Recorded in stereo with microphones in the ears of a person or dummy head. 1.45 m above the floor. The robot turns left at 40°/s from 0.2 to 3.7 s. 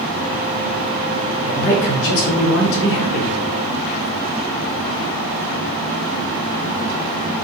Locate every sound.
1.4 s a man speaking: 140° left, 0.8 m; by 3.3 s 65° left, 0.8 m